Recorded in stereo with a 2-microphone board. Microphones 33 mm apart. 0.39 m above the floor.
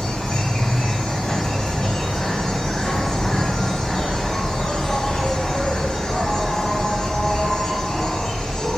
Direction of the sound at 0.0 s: 15° left (ahead or behind).